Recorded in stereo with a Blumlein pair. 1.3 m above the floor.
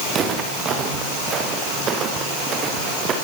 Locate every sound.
0.1 s footsteps: 25° right, 6 m